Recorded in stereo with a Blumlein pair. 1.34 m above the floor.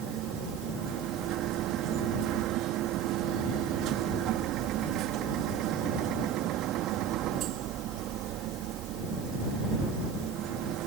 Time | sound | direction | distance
0.0 | a machine running | 35° right | ?